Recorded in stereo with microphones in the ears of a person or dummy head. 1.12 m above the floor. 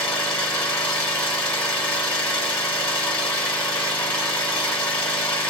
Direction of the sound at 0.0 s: 10° left (ahead or behind).